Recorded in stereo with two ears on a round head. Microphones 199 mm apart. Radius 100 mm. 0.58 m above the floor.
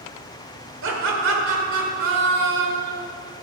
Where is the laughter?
60° right (ahead or behind), 2 m.